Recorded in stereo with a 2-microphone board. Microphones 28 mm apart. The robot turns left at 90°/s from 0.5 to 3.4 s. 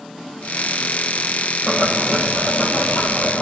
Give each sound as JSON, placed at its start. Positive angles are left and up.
{"t": 1.7, "sound": "boiling", "azimuth_deg": -125, "distance_m": 9.5}